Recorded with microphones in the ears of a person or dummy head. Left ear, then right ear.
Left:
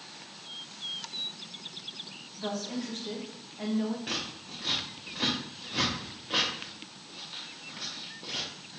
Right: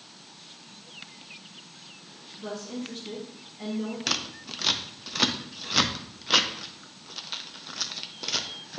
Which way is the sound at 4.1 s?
65° right (ahead or behind).